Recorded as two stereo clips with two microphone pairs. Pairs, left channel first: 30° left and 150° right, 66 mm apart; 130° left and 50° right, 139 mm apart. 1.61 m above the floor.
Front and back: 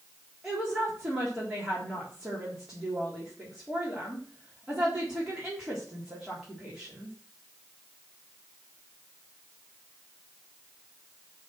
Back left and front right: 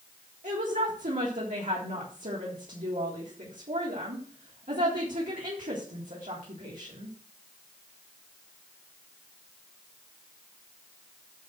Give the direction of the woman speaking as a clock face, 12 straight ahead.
2 o'clock.